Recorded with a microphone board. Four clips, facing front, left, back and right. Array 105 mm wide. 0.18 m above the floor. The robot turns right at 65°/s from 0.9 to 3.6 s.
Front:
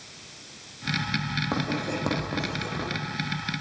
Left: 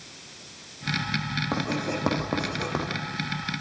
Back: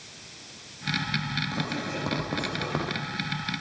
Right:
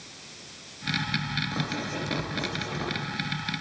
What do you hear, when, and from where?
1.5 s writing: 45° left, 9.5 m; by 2.9 s 135° left, 9.5 m